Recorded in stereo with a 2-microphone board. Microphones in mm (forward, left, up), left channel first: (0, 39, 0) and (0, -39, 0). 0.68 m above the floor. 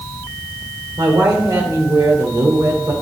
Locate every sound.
1.0 s a woman speaking: 60° right (ahead or behind), 2 m